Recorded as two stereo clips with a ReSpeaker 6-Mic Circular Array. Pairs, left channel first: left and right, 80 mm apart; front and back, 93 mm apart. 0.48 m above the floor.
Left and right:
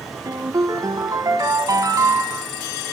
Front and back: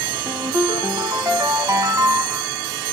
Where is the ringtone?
130° right, 1.7 m.